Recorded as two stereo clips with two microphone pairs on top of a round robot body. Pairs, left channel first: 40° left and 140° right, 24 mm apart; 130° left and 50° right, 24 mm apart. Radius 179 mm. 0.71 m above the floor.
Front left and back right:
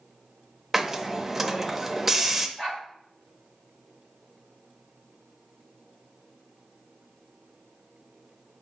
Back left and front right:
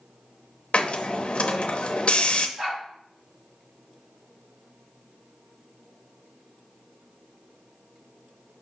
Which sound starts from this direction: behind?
A hiss, at 0.7 s.